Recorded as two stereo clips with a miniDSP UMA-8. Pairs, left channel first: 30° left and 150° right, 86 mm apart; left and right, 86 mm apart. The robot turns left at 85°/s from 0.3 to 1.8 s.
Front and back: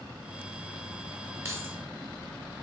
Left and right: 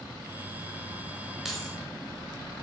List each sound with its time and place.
1.4 s keys jangling: 175° right, 1.0 m; by 1.8 s 155° left, 1.0 m